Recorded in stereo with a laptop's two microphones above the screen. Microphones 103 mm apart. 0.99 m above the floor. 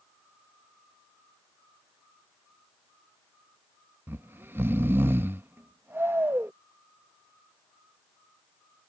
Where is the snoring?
20° right (ahead or behind).